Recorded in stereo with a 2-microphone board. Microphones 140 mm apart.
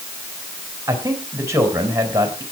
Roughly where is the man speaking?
Right.